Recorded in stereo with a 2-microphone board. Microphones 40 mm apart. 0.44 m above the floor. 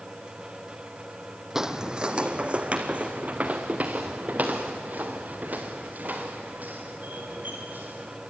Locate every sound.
1.6 s footsteps: 10° right (ahead or behind), 1.0 m; by 8.2 s 45° right (ahead or behind), 6 m